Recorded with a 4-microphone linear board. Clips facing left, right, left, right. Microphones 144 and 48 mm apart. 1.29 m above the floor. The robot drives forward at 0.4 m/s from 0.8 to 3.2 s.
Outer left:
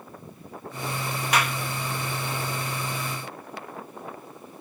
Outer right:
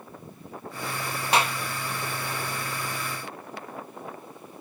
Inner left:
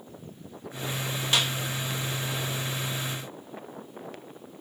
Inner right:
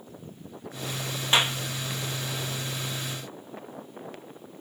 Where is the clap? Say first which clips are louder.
Outer right 2 dB, inner right 4 dB; 30° right (ahead or behind).